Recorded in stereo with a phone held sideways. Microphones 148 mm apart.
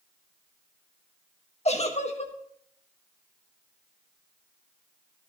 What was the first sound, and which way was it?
A giggle, 50° left (ahead or behind).